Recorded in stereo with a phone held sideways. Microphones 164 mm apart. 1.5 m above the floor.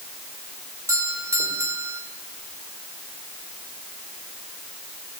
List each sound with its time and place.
0.9 s a doorbell: 20° right (ahead or behind), 6.5 m